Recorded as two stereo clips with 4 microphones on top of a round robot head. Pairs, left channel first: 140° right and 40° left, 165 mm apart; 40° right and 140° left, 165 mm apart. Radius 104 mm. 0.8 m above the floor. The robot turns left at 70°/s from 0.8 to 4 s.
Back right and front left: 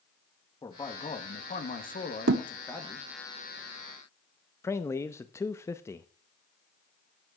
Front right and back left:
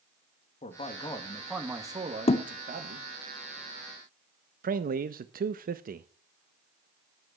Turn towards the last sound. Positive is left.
turn(degrees=150)